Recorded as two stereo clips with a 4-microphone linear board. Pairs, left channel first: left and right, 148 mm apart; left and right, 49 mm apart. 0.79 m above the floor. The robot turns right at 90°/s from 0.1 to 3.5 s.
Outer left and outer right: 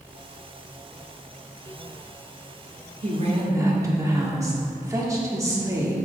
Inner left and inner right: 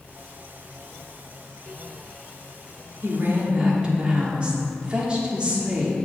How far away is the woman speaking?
About 1.4 m.